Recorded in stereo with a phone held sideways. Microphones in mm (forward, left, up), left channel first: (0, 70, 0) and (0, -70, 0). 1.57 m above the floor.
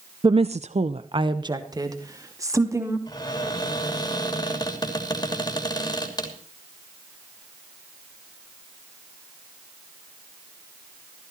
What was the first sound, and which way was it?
A woman speaking, 35° right (ahead or behind).